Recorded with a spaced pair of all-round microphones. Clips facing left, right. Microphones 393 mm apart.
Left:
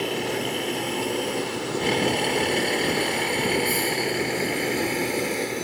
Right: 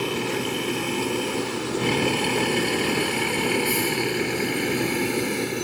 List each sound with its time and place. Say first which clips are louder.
0.0 s a vehicle: right 1 dB; 15° right (ahead or behind); by 5.7 s 20° right (ahead or behind)